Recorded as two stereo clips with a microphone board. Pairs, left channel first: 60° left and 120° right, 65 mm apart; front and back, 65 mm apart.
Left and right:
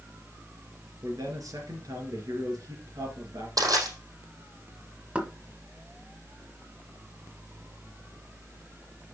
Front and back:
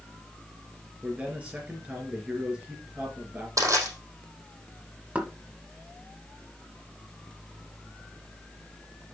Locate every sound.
1.0 s a man speaking: 110° right, 3.5 m
3.6 s crushing: 145° right, 4.5 m
5.2 s knocking: 160° right, 1.1 m